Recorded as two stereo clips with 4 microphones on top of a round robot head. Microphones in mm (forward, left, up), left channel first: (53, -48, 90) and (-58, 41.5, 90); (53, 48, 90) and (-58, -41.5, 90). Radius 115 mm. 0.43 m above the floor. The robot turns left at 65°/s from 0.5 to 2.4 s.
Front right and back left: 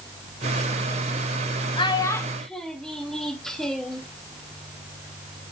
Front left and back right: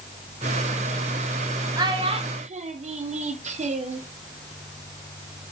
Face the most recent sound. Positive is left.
turn(degrees=-125)